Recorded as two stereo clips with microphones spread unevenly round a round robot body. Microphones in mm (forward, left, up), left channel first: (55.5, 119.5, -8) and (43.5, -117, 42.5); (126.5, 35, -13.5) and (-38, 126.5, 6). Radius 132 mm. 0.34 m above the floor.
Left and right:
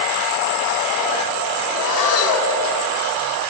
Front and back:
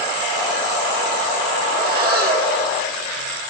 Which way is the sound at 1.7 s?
110° left.